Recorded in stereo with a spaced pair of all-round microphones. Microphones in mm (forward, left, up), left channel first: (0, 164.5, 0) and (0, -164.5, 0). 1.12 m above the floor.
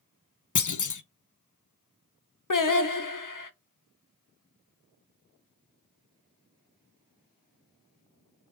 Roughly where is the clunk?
Left.